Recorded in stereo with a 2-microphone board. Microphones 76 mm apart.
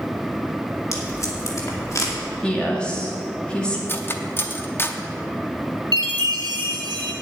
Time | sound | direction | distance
0.9 | tape being pulled | 45° left (ahead or behind) | 2.5 m
2.4 | a woman speaking | 15° left (ahead or behind) | 2 m
3.9 | cutlery clinking | 30° left (ahead or behind) | 0.8 m
5.9 | a chime | 80° right | 1.9 m